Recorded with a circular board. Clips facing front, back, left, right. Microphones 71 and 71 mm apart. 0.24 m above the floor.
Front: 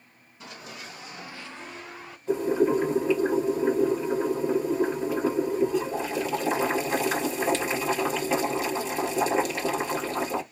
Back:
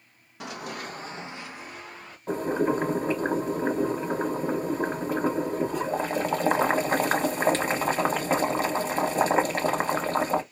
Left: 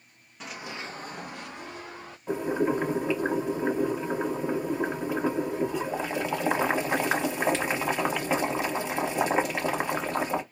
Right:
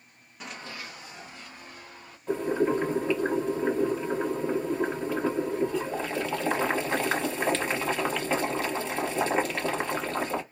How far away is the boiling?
About 0.9 m.